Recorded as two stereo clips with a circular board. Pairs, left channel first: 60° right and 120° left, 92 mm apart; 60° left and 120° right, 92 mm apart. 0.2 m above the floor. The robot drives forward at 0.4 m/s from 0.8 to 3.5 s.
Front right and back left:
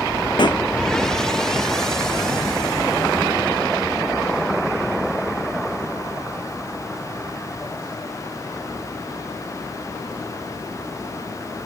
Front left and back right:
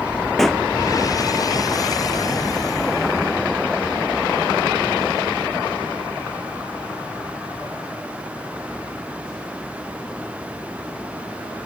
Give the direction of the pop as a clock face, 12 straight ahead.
1 o'clock.